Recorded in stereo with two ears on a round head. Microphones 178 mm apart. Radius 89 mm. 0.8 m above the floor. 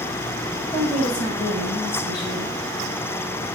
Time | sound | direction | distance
0.7 | a woman speaking | 25° left (ahead or behind) | 3.5 m